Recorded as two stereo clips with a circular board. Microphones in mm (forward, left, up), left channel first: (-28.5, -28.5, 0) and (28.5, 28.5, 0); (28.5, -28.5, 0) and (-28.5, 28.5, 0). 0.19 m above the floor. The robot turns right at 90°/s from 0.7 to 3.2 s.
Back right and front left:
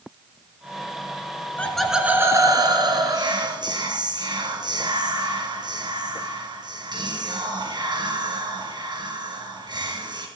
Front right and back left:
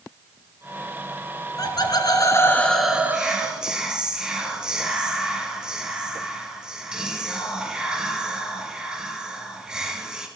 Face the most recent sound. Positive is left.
turn(degrees=55)